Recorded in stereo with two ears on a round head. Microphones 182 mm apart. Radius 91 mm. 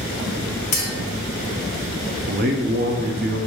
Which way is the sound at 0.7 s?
40° left (ahead or behind).